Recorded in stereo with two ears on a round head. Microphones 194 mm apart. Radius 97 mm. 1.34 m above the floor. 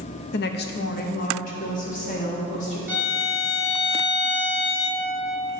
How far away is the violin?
About 1.2 m.